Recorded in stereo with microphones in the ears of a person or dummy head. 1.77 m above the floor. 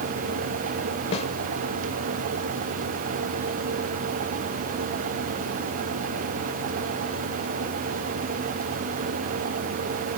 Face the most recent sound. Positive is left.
turn(degrees=35)  # may be behind; listen again after turning